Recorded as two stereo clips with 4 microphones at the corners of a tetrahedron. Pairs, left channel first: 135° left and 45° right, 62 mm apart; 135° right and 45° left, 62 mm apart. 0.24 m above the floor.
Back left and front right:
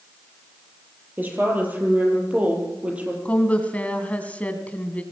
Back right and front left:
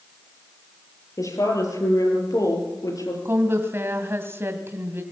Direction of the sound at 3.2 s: 75° left.